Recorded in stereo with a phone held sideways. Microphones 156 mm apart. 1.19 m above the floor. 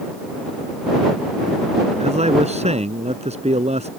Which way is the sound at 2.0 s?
45° right (ahead or behind).